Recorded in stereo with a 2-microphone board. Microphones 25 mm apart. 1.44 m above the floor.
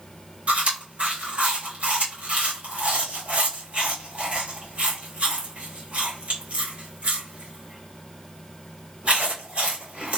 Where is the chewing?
60° right (ahead or behind), 1.9 m.